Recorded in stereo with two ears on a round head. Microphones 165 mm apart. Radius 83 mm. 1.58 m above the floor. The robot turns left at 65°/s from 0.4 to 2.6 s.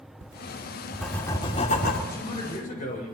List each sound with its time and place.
0.2 s writing: 140° right, 2.5 m; by 2.0 s 115° left, 2.5 m
2.1 s a man speaking: 165° left, 7 m; by 3.1 s 135° left, 7 m